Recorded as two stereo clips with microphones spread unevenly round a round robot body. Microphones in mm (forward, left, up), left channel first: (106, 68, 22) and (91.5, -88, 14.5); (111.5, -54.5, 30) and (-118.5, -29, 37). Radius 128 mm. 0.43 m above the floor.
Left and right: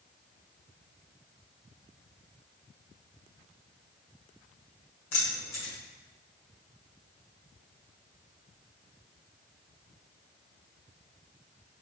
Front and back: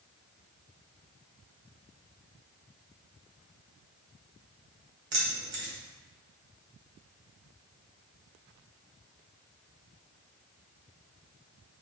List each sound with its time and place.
5.1 s keys jangling: 135° left, 1.5 m